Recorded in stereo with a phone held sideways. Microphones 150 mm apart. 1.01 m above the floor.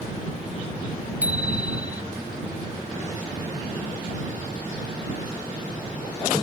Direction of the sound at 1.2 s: 10° right (ahead or behind).